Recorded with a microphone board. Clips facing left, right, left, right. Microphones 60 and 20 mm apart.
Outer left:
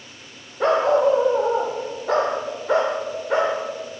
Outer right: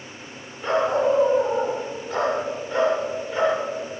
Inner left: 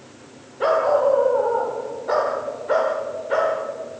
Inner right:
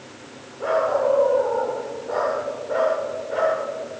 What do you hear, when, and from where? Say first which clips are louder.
0.6 s a dog barking: outer left 4 dB, inner left 3 dB; 70° left (ahead or behind), 5.5 m; by 3.6 s 85° left, 8.5 m